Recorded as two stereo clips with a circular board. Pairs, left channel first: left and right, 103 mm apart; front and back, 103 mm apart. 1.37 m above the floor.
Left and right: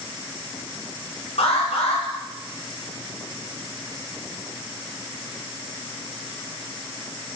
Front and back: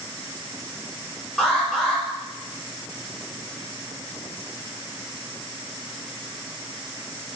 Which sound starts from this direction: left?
An alarm, at 1.4 s.